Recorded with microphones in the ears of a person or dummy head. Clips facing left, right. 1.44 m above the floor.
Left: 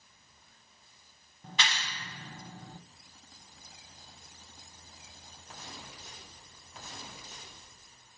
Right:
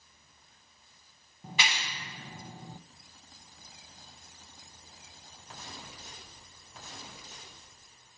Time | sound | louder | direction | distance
1.4 | a clap | right 1 dB | 5° right (ahead or behind) | 0.7 m